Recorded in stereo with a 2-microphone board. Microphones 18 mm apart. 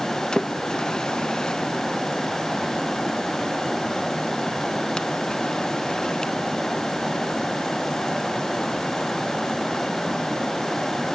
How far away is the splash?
About 0.5 m.